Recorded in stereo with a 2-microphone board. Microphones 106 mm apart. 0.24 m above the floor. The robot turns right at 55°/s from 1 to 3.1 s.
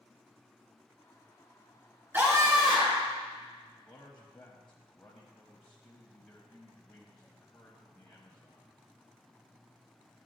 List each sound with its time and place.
2.1 s a scream: 160° right, 3 m; by 3.1 s 105° right, 3 m
3.8 s a man speaking: 15° left (ahead or behind), 1.0 m